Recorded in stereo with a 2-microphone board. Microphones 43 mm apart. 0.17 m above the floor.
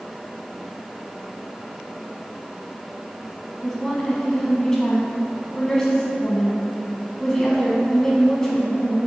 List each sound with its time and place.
3.6 s a woman speaking: 15° left (ahead or behind), 1.0 m